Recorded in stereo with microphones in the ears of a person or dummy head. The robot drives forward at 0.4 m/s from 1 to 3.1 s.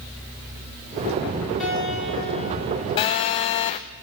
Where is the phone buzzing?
25° left (ahead or behind), 0.5 m.